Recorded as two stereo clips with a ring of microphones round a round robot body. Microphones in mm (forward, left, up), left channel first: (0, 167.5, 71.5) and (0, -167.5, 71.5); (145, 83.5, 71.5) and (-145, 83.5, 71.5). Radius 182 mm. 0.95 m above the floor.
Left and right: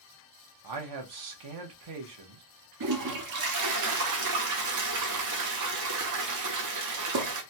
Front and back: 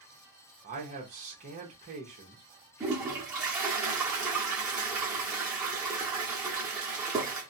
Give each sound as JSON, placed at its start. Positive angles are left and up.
{"t": 0.6, "sound": "a man speaking", "azimuth_deg": -115, "distance_m": 0.9}
{"t": 2.8, "sound": "a toilet flushing", "azimuth_deg": -100, "distance_m": 0.6}